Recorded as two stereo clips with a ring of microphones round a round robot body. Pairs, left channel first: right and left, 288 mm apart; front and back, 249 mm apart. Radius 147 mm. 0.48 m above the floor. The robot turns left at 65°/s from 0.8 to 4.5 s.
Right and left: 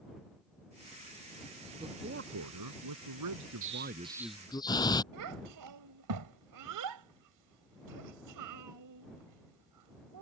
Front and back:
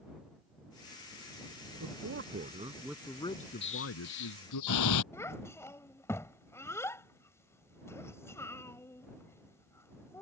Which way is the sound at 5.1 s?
80° left.